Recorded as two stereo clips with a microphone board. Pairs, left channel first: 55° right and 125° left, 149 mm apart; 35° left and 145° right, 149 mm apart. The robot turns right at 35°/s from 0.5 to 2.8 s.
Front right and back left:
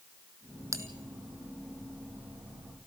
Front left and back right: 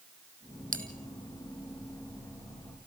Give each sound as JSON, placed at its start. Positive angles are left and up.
{"t": 0.7, "sound": "a bell", "azimuth_deg": -165, "distance_m": 1.6}